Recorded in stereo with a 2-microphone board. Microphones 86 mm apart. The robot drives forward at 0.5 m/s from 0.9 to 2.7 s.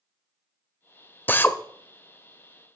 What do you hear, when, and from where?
1.3 s a drill: 20° left (ahead or behind), 0.7 m; by 1.6 s 25° left (ahead or behind), 0.6 m